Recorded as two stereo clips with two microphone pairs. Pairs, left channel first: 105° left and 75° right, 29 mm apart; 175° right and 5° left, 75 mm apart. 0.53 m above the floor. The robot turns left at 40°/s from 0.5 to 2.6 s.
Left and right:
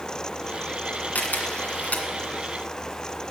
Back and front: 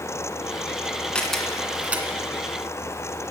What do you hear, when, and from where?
1.1 s a camera shutter: 105° left, 1.6 m; by 2.1 s 70° left, 1.6 m